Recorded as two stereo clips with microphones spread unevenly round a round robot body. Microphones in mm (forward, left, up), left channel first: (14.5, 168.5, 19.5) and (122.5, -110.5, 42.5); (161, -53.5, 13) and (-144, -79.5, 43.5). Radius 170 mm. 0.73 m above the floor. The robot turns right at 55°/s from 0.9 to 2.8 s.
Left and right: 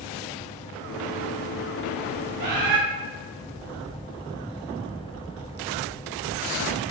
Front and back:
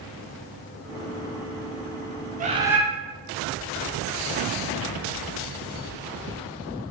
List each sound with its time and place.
2.4 s a bird: 110° right, 0.5 m; by 2.8 s 85° right, 0.5 m